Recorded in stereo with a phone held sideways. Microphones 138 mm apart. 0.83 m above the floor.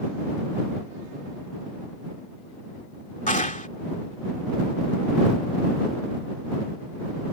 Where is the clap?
70° left (ahead or behind).